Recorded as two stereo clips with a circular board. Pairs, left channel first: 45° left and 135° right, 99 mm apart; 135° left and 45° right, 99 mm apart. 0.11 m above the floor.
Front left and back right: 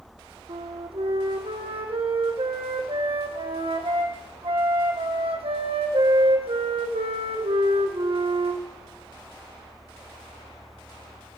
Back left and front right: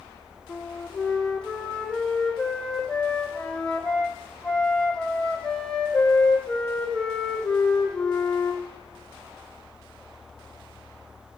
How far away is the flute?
About 2 m.